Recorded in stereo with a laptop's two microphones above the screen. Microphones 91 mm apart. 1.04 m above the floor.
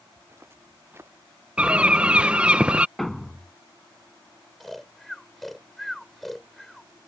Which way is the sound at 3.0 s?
5° left (ahead or behind).